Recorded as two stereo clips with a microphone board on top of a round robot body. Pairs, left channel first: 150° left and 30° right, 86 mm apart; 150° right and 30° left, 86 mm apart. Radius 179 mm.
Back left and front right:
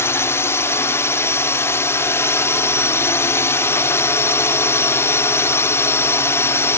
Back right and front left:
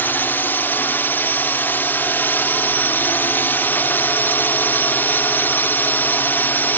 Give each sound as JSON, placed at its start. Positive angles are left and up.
{"t": 0.0, "sound": "a drone", "azimuth_deg": 170}